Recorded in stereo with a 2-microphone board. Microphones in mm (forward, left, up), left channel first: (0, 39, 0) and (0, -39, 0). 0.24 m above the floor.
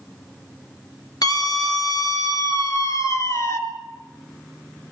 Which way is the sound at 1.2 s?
60° left (ahead or behind).